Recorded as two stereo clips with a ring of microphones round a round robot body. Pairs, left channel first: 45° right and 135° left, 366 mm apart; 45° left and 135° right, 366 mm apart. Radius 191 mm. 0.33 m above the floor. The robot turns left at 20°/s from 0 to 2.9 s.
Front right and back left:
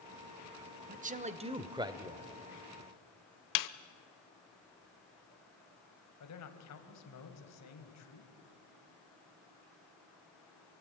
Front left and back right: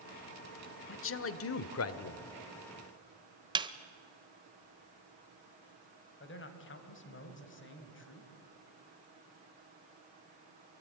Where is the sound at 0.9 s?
80° left, 1.1 m; by 2.3 s 55° left, 1.1 m.